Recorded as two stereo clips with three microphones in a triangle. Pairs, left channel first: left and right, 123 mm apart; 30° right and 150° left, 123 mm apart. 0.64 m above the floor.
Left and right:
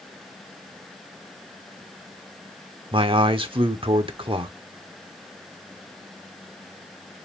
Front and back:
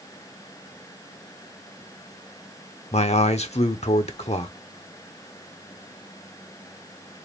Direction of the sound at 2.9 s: 50° right.